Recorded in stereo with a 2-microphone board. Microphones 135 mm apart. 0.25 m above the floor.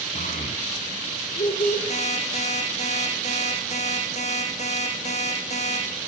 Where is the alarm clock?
55° left (ahead or behind), 6 m.